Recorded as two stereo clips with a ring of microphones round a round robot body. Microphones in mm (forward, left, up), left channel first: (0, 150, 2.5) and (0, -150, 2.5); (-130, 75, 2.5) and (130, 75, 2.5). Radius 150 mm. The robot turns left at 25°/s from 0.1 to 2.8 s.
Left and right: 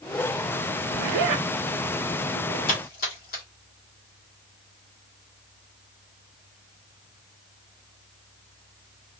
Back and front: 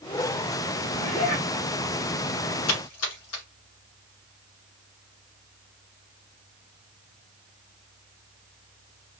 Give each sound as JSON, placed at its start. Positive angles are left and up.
{"t": 0.9, "sound": "a zipper", "azimuth_deg": -105, "distance_m": 0.7}
{"t": 2.7, "sound": "a splash", "azimuth_deg": 155, "distance_m": 1.5}